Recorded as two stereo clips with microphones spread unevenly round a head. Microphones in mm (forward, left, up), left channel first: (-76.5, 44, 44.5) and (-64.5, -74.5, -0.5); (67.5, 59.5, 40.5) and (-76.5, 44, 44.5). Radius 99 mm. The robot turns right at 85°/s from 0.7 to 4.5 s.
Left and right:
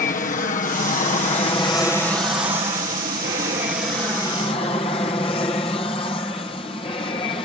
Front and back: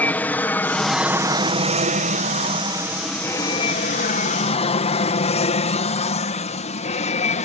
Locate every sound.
0.0 s an aircraft: 80° left; by 7.5 s 30° left